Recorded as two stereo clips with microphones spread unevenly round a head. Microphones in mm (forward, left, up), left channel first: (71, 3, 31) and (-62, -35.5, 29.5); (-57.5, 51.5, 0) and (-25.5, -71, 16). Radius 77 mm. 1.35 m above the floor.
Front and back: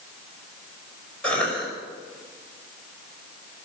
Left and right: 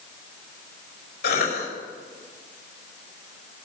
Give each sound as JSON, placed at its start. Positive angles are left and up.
{"t": 1.2, "sound": "a cough", "azimuth_deg": 100, "distance_m": 5.5}